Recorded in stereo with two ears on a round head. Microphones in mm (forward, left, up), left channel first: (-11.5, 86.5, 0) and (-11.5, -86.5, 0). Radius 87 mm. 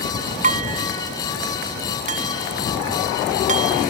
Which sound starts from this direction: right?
Dishes clattering, at 0.4 s.